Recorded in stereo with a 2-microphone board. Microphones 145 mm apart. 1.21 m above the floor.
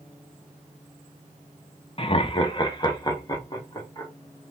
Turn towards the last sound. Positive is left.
turn(degrees=25)  # may be behind; listen again after turning